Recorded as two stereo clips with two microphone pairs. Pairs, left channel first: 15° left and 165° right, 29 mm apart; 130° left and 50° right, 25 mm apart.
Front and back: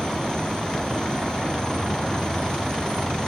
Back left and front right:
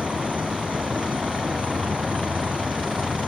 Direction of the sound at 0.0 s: 45° right.